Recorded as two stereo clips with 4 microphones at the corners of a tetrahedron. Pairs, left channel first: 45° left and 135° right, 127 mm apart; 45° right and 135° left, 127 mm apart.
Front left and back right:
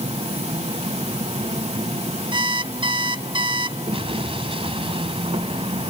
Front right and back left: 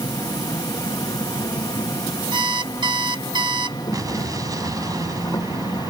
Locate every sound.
0.0 s an insect: 105° right, 1.6 m
2.3 s an alarm clock: 175° right, 0.8 m
3.9 s an explosion: 170° right, 1.8 m